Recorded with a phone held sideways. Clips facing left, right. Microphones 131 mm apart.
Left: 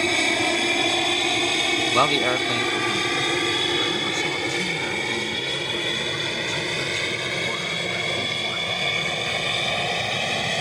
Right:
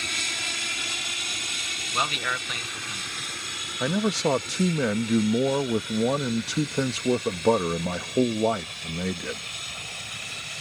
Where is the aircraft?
60° left (ahead or behind); by 10.6 s 70° left (ahead or behind).